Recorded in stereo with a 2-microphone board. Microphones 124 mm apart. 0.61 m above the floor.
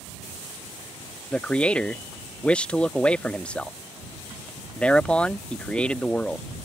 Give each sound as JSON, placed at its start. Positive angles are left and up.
{"t": 1.3, "sound": "a man speaking", "side_deg": 10}